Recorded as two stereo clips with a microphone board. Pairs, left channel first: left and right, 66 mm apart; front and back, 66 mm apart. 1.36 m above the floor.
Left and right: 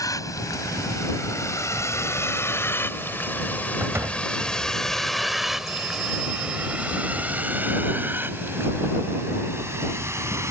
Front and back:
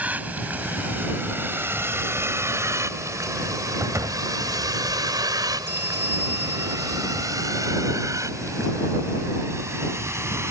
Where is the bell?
125° right.